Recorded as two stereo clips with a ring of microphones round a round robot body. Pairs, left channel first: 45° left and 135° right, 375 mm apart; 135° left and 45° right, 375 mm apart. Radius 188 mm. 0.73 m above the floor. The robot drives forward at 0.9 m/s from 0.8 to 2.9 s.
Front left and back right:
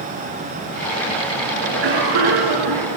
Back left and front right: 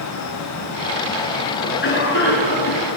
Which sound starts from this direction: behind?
A cough, at 1.6 s.